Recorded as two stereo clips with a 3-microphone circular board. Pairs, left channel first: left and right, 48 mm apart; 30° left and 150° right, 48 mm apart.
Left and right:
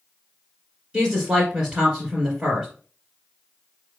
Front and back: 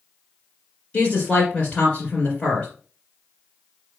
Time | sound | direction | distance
0.9 | a woman speaking | 25° right | 2.0 m